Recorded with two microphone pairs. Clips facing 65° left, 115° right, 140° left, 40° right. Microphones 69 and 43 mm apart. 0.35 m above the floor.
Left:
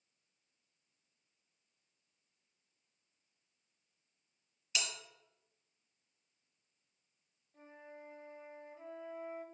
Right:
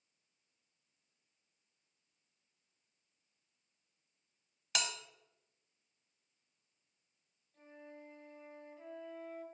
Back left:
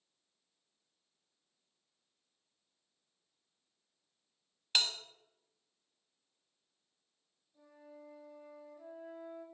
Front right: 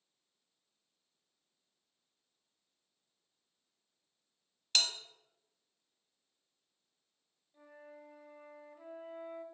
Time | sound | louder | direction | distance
4.8 | a bell | right 2 dB, even | 145° right | 0.9 m
7.5 | a flute | even, front right 2 dB | 5° right | 1.8 m